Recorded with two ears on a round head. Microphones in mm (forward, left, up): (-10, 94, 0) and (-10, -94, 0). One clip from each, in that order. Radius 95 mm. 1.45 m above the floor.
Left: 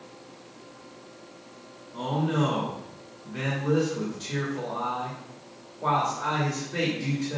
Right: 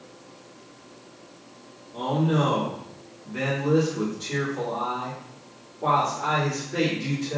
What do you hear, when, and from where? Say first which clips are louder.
1.9 s a man speaking: right 3 dB; 10° left (ahead or behind), 3 m